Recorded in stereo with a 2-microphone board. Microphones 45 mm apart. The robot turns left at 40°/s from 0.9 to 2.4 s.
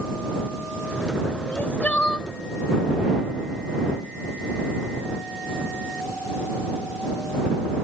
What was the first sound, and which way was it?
Crying, 60° left.